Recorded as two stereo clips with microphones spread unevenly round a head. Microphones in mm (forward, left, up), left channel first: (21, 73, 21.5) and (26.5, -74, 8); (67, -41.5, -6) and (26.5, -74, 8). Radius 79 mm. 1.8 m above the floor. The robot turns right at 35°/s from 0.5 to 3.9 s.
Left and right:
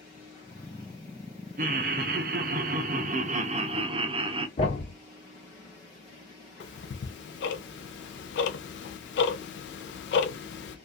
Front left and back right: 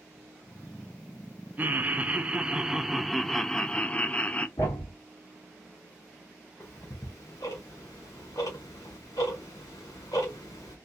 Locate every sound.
1.6 s laughter: 120° right, 0.5 m; by 4.5 s 35° right, 0.5 m
4.6 s a thud: 75° left, 1.4 m
6.6 s ticking: 100° left, 0.5 m